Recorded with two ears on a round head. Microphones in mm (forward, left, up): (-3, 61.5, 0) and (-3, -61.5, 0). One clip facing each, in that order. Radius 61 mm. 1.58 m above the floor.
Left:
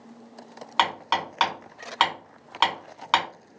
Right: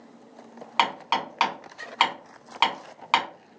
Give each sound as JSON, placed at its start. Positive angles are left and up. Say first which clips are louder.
{"t": 0.8, "sound": "hammering", "louder": "even", "side_deg": -5, "distance_m": 1.9}